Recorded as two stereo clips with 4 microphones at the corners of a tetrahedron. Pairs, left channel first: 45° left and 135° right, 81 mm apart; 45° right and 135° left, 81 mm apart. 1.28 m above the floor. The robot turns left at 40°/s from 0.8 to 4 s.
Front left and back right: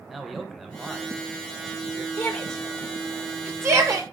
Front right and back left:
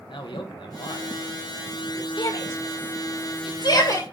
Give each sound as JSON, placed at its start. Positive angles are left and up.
{"t": 0.1, "sound": "a man speaking", "azimuth_deg": -45, "distance_m": 1.0}
{"t": 2.2, "sound": "a shout", "azimuth_deg": -20, "distance_m": 1.8}